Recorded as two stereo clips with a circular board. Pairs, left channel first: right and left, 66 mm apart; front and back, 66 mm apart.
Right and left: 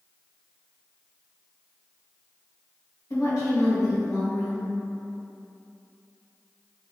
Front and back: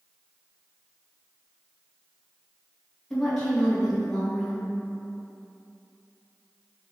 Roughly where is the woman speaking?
Right.